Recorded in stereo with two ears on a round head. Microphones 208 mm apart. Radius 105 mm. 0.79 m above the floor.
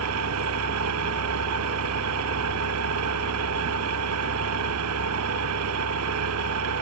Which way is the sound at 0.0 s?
65° right (ahead or behind).